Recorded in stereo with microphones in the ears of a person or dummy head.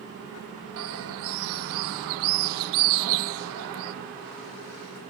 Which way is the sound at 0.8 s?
80° right.